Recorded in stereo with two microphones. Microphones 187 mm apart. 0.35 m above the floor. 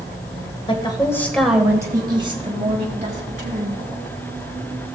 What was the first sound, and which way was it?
A woman speaking, 30° left (ahead or behind).